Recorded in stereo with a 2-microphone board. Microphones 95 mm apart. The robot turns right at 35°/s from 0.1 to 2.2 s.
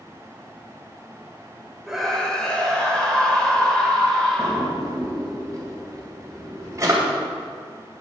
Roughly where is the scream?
Centre.